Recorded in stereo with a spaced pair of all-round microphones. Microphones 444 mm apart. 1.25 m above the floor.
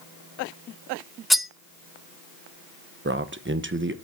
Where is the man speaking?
25° right (ahead or behind), 0.9 m.